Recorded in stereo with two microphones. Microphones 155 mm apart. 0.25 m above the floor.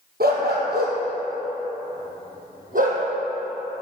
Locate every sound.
0.2 s a dog barking: 85° right, 2.5 m; by 3.0 s 60° right (ahead or behind), 3.5 m